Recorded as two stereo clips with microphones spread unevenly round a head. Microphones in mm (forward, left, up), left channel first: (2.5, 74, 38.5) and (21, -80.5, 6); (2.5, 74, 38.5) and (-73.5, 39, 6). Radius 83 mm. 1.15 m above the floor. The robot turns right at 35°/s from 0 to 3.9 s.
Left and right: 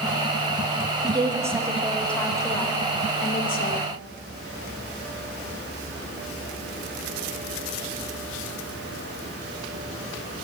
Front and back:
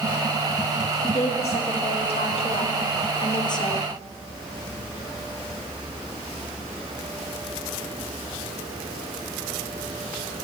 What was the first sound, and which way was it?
A woman speaking, 25° right.